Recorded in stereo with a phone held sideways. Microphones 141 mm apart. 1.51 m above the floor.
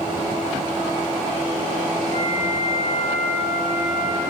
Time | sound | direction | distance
2.1 | a flute | 65° right (ahead or behind) | 4 m